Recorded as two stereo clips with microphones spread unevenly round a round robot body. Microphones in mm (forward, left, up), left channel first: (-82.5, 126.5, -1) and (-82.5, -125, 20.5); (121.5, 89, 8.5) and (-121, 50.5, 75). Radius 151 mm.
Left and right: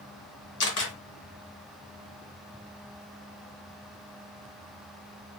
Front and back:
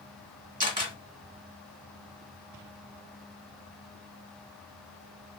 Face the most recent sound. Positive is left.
turn(degrees=125)